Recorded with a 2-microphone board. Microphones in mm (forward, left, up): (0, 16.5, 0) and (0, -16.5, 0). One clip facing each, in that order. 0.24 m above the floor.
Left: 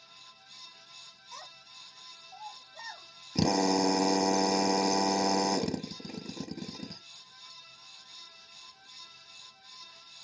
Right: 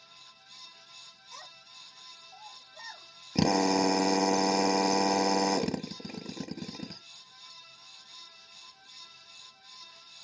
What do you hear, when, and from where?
1.3 s a child speaking: 25° left (ahead or behind), 1.1 m; by 3.1 s 40° left (ahead or behind), 1.3 m
3.4 s a drill: 30° right (ahead or behind), 0.6 m